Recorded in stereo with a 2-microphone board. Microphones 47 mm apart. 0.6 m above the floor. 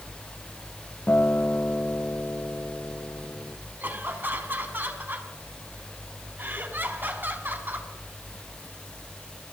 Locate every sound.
1.1 s a guitar: 50° left (ahead or behind), 1.1 m
3.8 s laughter: 45° right (ahead or behind), 5.5 m